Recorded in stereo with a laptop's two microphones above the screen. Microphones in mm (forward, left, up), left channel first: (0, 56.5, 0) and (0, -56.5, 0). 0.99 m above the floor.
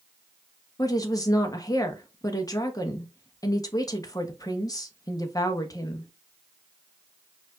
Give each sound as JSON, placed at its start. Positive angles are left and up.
{"t": 0.8, "sound": "a woman speaking", "side_deg": 30, "distance_m": 1.1}